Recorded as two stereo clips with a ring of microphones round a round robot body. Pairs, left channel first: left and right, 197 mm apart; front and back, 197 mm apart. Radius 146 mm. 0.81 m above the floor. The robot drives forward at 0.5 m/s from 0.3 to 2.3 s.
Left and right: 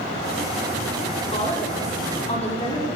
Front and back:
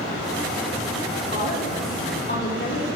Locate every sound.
1.3 s a woman speaking: 35° left, 8.5 m